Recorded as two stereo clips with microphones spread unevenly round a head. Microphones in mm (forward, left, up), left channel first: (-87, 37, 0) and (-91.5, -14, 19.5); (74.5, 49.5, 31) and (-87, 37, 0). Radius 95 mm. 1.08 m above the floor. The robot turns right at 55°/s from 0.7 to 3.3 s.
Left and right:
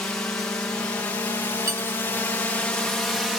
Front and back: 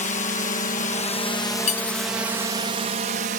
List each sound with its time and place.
0.0 s a drone: 40° left; by 3.4 s 170° left
1.7 s cutlery clinking: 50° right; by 2.1 s 25° right